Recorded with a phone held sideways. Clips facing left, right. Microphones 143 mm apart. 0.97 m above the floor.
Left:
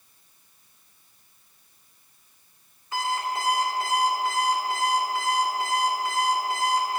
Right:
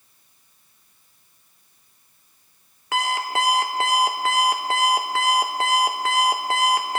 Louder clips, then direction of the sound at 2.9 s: Right 4 dB; 70° right (ahead or behind).